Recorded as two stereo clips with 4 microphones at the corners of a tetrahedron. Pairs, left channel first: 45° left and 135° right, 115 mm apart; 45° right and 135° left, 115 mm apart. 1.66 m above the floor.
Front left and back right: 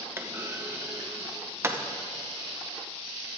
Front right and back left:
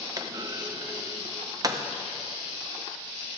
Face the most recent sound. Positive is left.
turn(degrees=170)